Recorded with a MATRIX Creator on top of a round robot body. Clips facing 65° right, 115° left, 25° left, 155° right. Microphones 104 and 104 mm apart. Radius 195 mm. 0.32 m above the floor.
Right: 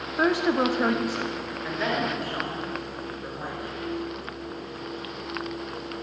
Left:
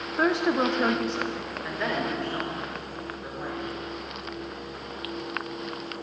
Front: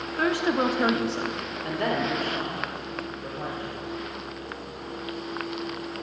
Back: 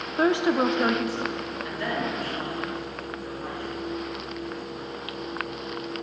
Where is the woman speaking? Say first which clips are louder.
Right 1 dB, back 2 dB; 155° right, 1.3 m; by 3.8 s 20° left, 4 m.